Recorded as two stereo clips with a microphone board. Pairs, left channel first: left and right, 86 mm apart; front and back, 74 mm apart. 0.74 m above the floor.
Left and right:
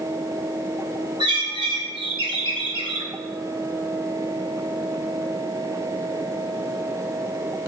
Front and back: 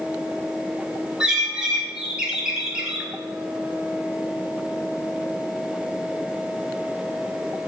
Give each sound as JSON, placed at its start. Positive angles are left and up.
{"t": 1.2, "sound": "a bird", "azimuth_deg": -100, "distance_m": 1.3}